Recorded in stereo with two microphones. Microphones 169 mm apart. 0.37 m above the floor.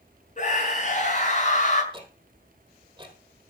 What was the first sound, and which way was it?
A scream, 45° left (ahead or behind).